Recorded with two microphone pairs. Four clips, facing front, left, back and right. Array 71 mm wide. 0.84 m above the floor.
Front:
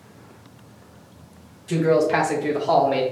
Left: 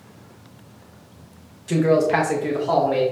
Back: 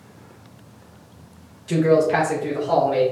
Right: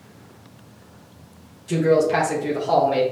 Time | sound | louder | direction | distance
1.7 | a man speaking | even, back 2 dB | 105° left | 1.0 m